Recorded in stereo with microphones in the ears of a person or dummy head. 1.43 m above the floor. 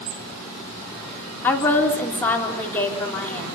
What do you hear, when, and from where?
1.4 s a woman speaking: 5° left (ahead or behind), 4 m